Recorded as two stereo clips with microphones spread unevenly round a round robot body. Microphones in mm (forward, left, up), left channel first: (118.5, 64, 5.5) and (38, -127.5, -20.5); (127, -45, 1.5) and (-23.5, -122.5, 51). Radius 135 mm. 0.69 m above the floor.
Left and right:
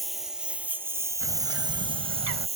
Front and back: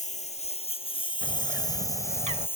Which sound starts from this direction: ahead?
A lawn mower, at 0.0 s.